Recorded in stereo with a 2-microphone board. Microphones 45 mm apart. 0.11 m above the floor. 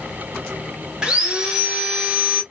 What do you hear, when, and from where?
1.0 s sawing: 15° right (ahead or behind), 1.9 m